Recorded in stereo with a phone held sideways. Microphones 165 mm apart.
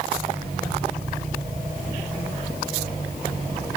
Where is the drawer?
No drawer in this recording.